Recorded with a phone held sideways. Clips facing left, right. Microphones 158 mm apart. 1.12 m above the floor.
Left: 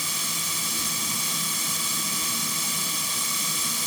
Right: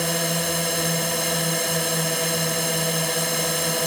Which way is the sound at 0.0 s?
70° right (ahead or behind).